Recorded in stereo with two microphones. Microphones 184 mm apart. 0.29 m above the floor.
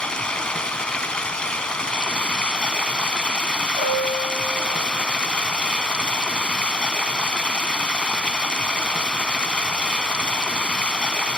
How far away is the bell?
About 2.5 m.